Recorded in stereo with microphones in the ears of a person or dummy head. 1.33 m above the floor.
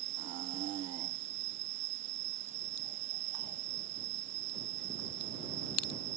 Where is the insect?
55° right (ahead or behind).